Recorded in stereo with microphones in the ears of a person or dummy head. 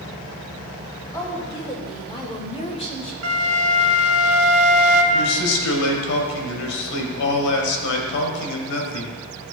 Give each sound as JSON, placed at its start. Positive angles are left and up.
{"t": 1.1, "sound": "a woman speaking", "side_deg": 20, "distance_m": 2.5}
{"t": 3.2, "sound": "a flute", "side_deg": -80, "distance_m": 1.1}
{"t": 5.1, "sound": "a man speaking", "side_deg": 85, "distance_m": 1.7}